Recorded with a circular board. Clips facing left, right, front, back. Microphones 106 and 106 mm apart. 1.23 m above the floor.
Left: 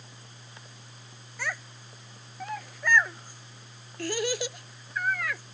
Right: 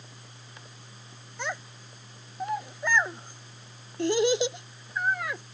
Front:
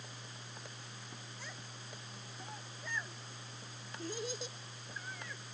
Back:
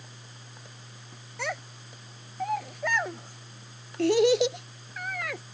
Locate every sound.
1.4 s a child speaking: 160° right